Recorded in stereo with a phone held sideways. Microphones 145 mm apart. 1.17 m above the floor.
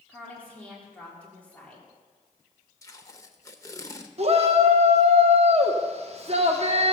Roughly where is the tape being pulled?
Left.